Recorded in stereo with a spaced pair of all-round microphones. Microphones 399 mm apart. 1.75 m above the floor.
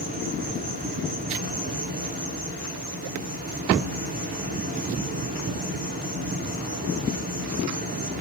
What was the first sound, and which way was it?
An insect, 20° right (ahead or behind).